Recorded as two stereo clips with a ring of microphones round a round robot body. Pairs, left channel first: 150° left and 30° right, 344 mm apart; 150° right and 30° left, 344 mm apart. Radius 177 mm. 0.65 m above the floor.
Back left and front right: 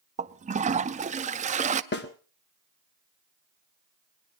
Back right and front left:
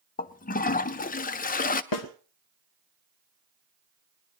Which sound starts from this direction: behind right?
A snare drum, at 1.9 s.